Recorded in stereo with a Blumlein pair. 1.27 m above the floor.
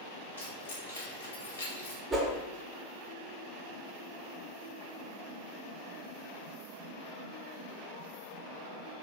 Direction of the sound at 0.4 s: 65° left.